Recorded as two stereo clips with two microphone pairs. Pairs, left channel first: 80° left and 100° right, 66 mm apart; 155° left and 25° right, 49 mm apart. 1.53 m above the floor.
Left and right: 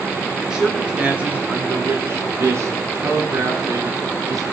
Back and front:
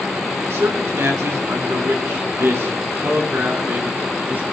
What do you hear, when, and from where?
0.5 s a man speaking: 20° right, 3 m; by 4.5 s 75° right, 4.5 m